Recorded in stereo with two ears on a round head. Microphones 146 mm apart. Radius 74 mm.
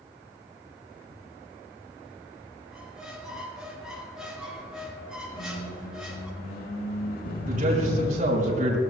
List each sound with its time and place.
2.7 s a squeak: 5° right (ahead or behind), 2.5 m
5.3 s a squeak: 75° left (ahead or behind), 5.5 m
7.5 s a man speaking: 50° right (ahead or behind), 4.5 m